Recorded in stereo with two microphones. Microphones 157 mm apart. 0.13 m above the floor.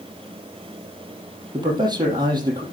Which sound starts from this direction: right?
A man speaking, at 1.5 s.